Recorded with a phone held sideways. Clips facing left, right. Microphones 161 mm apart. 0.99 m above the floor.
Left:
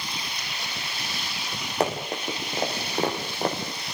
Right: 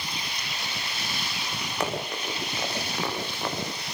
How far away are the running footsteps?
About 6.5 m.